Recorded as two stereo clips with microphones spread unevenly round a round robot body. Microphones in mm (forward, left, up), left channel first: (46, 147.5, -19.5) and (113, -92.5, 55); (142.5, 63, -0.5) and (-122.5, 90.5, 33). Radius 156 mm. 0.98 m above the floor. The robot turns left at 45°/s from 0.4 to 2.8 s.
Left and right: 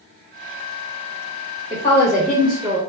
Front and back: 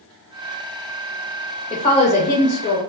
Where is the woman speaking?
55° left, 0.9 m; by 2.8 s 5° left, 0.9 m.